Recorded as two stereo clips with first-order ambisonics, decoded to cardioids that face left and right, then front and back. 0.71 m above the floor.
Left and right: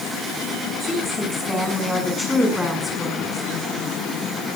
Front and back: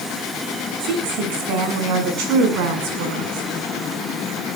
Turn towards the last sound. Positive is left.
turn(degrees=175)